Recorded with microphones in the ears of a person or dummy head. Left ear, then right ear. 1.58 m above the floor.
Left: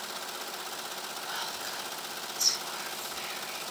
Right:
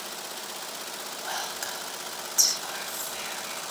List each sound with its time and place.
1.2 s whispering: 50° right (ahead or behind), 9 m